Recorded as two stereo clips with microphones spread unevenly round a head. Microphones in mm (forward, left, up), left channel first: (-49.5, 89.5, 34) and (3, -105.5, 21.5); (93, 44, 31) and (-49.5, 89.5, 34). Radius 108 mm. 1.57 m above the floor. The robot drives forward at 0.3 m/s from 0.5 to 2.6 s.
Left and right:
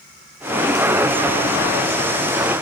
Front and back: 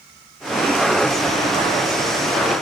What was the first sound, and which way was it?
Only background noise.